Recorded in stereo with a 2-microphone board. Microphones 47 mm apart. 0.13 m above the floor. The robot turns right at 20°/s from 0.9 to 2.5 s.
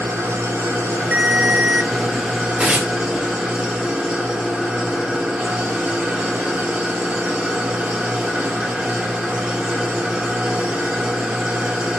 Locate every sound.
0.0 s an engine running: 50° right, 5 m; by 12.0 s 20° right, 5 m
1.1 s a ringtone: 40° right (ahead or behind), 0.6 m
2.6 s tearing paper: 25° right (ahead or behind), 4.5 m